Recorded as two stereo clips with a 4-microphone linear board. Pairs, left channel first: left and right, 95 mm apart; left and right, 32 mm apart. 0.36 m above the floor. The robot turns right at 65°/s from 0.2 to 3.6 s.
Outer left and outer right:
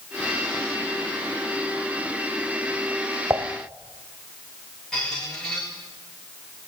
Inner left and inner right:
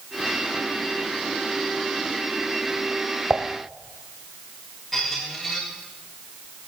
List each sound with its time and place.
3.3 s dishes clattering: 30° right (ahead or behind), 0.9 m; by 3.5 s 20° right (ahead or behind), 0.9 m
4.9 s a squeak: 10° left (ahead or behind), 4.5 m